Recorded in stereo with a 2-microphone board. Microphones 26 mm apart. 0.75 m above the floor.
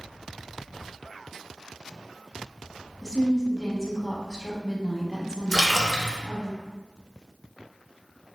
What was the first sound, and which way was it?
A woman speaking, 20° left (ahead or behind).